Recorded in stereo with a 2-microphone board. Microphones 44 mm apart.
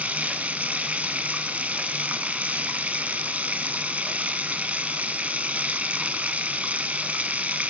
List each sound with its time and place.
0.0 s running water: 30° right (ahead or behind), 0.7 m